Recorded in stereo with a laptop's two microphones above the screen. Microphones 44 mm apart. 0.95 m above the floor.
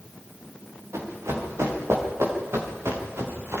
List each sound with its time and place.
0.9 s running footsteps: 80° right, 7 m; by 3.6 s 70° right (ahead or behind), 6 m